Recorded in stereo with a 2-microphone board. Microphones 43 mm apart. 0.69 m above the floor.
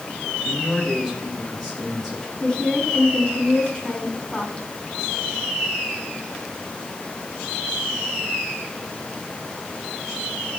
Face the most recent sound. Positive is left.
turn(degrees=20)  # may be behind; listen again after turning